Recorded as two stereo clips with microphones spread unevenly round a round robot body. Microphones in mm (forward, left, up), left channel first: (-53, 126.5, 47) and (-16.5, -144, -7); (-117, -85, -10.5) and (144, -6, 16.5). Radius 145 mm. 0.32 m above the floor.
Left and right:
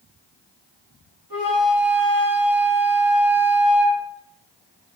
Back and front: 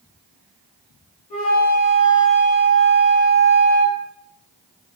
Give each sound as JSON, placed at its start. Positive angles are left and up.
{"t": 1.3, "sound": "a flute", "azimuth_deg": 130, "distance_m": 3.0}